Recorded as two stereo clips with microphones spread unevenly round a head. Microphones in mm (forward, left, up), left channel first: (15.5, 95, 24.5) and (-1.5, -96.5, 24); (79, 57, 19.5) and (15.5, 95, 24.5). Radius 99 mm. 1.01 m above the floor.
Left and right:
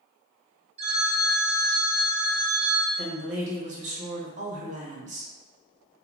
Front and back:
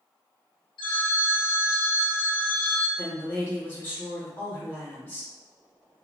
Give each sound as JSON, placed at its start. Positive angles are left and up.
{"t": 0.8, "sound": "a phone ringing", "azimuth_deg": -35, "distance_m": 0.7}
{"t": 3.0, "sound": "a woman speaking", "azimuth_deg": -75, "distance_m": 1.0}